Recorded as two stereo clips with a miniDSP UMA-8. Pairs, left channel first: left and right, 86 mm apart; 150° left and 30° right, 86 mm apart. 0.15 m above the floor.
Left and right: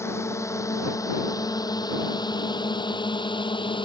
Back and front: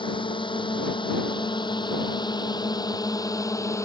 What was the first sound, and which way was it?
A drone, 145° left.